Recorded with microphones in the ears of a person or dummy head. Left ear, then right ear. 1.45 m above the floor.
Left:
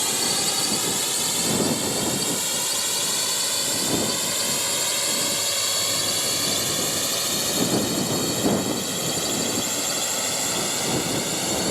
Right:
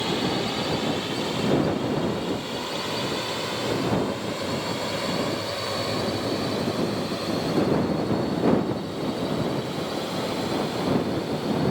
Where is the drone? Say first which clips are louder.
Left 2 dB; 75° left (ahead or behind); by 11.7 s 65° left (ahead or behind).